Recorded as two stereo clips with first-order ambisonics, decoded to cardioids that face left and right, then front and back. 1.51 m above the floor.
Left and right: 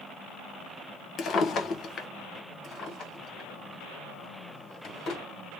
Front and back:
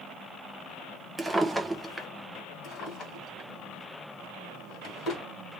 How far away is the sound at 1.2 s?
About 0.6 m.